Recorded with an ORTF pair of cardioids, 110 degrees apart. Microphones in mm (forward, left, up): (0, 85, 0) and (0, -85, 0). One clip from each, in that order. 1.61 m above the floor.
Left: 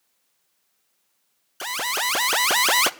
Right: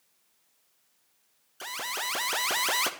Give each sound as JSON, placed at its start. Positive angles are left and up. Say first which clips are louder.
{"t": 1.6, "sound": "an alarm", "louder": "left 8 dB", "azimuth_deg": 40, "distance_m": 0.6}